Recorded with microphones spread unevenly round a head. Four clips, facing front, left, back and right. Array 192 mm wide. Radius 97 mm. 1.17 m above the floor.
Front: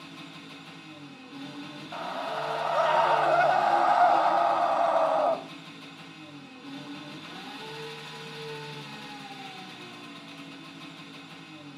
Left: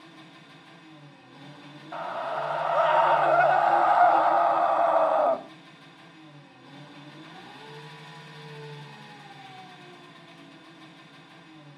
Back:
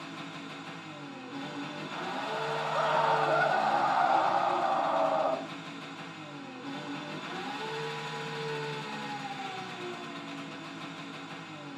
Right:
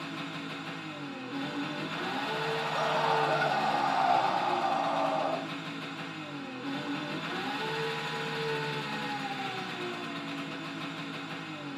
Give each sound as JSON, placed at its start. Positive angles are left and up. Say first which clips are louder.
{"t": 0.0, "sound": "an engine running", "louder": "right 11 dB, back 3 dB", "azimuth_deg": -95, "distance_m": 1.3}
{"t": 1.9, "sound": "a scream", "louder": "left 7 dB, front 3 dB", "azimuth_deg": 60, "distance_m": 3.0}